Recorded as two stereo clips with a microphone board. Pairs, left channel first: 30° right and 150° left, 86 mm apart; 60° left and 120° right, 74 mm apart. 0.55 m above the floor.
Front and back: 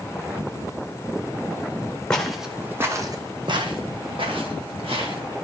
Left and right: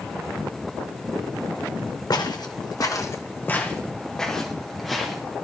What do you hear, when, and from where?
2.1 s footsteps: 50° left, 1.6 m; by 5.2 s 155° left, 3.5 m